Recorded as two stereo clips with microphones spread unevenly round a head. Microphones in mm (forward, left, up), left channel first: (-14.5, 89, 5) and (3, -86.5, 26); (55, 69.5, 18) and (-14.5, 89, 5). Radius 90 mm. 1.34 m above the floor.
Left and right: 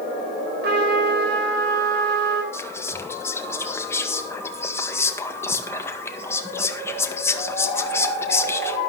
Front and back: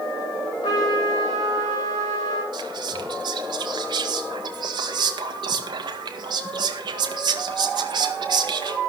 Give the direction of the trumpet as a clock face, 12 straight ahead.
2 o'clock.